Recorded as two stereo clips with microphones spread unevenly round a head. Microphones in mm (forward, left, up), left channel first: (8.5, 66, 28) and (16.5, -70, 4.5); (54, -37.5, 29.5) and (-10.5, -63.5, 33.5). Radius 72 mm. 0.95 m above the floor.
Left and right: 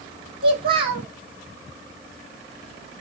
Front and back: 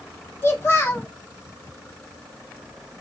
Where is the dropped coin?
I don't hear a dropped coin.